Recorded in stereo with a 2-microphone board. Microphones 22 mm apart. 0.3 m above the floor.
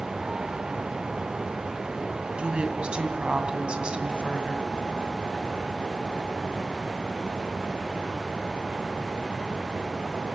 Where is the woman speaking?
60° right (ahead or behind), 2 m.